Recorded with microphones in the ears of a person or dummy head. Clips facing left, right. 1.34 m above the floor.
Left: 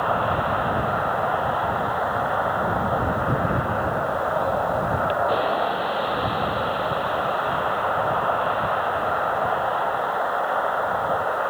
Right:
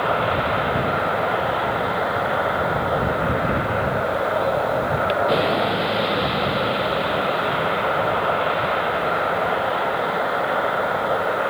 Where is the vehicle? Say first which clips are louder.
Right 2 dB; 30° right (ahead or behind).